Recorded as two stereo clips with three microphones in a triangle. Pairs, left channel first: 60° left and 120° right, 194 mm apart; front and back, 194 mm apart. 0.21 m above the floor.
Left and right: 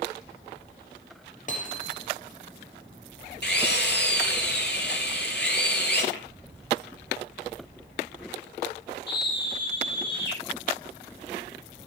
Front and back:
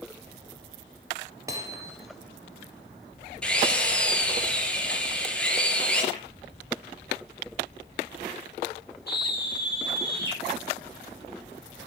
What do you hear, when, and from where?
1.5 s hammering: 105° left, 2.5 m
3.4 s a drill: 85° left, 3.5 m
6.1 s tapping: 70° left, 5.5 m
9.1 s a scream: 35° left, 8 m